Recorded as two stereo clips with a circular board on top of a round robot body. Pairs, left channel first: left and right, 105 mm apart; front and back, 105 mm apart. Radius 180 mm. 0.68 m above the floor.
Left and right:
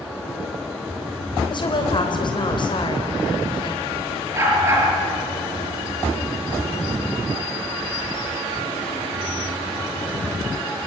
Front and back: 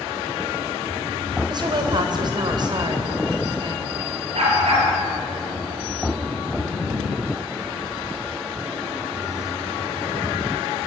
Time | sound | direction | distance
1.5 | a woman speaking | 135° left | 3.5 m
4.3 | a dog barking | 155° right | 8 m